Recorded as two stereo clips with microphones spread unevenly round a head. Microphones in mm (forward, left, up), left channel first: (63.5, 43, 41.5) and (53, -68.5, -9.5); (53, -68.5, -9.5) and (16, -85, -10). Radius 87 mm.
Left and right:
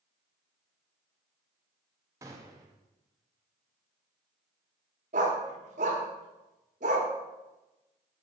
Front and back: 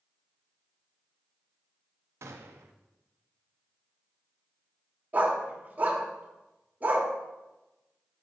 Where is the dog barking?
140° right, 1.1 m.